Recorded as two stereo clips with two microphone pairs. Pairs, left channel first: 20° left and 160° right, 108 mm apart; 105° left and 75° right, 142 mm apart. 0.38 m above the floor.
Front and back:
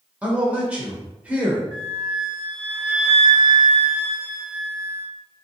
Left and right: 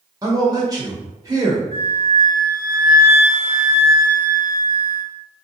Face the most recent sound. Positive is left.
turn(degrees=-85)